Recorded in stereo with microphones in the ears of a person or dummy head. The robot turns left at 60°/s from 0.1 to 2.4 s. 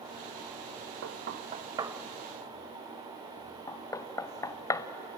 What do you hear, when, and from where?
1.0 s knocking: 65° right (ahead or behind), 0.8 m; by 4.9 s 15° left (ahead or behind), 0.8 m